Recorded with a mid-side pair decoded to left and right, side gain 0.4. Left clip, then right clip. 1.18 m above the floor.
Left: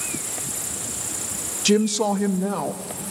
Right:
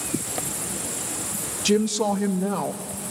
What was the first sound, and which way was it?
A woman speaking, 25° left.